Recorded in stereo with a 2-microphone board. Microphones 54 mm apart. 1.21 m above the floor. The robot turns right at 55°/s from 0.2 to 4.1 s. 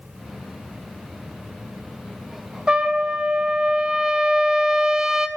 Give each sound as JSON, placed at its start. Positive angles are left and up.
{"t": 2.7, "sound": "a trumpet", "side_deg": -15, "distance_m": 0.5}